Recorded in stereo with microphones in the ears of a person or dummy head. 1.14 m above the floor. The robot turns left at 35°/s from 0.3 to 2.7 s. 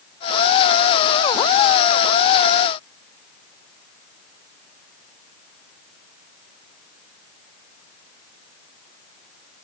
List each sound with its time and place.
Only background noise.